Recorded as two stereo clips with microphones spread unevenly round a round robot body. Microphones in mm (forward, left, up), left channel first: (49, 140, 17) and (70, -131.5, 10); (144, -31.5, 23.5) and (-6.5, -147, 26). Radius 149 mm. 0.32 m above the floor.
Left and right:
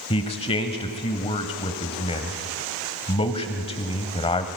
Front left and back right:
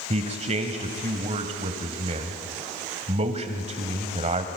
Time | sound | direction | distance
0.1 | a man speaking | 165° left | 1.4 m